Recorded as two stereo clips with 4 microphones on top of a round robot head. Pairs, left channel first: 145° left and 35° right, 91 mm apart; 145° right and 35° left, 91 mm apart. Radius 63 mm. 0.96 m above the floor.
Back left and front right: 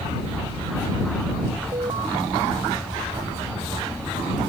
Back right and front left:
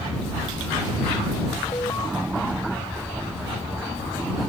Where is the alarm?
80° right.